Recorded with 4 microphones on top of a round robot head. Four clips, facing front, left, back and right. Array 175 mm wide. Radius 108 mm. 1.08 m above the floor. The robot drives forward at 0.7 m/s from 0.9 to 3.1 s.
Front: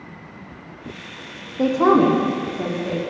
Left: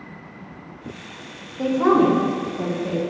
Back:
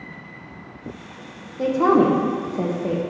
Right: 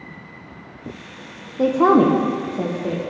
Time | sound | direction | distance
1.6 | a woman speaking | 55° right | 0.7 m